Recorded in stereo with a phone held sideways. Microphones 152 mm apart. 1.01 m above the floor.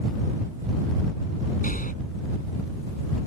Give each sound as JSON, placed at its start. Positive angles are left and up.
{"t": 1.6, "sound": "breathing", "side_deg": 65}